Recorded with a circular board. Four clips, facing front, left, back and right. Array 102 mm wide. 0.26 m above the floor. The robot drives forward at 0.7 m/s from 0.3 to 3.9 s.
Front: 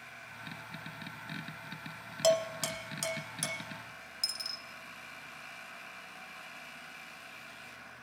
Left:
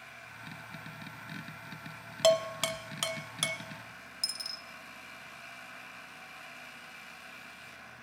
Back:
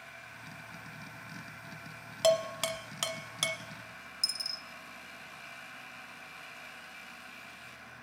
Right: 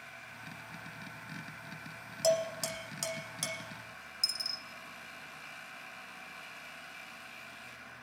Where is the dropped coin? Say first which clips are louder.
Right 1 dB, even; 45° left, 0.6 m.